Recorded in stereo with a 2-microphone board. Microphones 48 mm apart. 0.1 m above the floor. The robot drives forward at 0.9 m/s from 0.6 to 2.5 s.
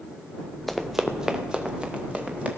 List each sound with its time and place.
0.7 s running footsteps: 5° left (ahead or behind), 1.0 m; by 2.5 s 25° right (ahead or behind), 2.5 m